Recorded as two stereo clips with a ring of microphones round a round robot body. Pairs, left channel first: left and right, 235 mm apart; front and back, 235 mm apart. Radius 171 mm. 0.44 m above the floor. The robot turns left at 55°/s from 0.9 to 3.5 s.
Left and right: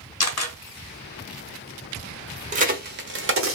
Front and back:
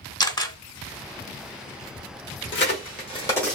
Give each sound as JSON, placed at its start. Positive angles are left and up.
{"t": 0.2, "sound": "a camera shutter", "azimuth_deg": 75, "distance_m": 1.2}
{"t": 2.5, "sound": "a crack", "azimuth_deg": -35, "distance_m": 1.1}